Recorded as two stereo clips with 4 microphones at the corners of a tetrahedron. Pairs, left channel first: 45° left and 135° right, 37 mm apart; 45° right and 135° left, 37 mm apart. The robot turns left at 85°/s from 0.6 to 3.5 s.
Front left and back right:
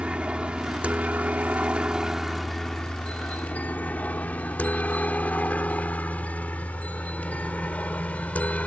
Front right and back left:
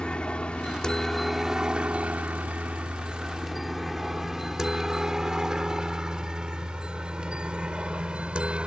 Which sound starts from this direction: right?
A helicopter, at 0.0 s.